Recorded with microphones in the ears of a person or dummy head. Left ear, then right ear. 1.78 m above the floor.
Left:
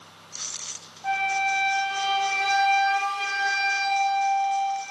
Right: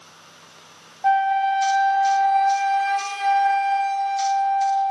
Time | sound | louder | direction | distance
1.0 | a flute | right 6 dB | 20° right (ahead or behind) | 1.0 m